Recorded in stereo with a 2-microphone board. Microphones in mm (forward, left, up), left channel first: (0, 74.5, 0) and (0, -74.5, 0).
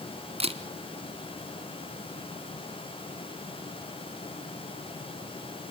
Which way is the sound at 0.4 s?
40° right (ahead or behind).